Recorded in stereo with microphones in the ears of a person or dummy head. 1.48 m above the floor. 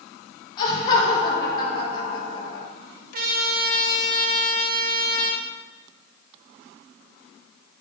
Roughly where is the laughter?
Left.